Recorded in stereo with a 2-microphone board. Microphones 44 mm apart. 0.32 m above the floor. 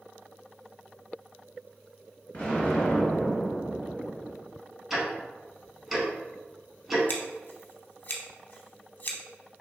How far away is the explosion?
About 1.8 m.